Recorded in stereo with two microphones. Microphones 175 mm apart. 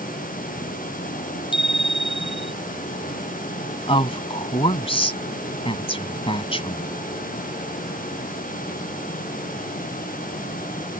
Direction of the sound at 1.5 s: 30° left (ahead or behind).